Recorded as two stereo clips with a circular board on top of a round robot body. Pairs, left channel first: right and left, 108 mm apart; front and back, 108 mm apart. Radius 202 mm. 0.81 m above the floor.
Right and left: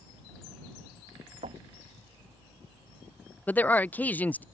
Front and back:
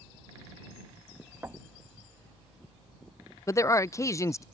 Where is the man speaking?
30° right.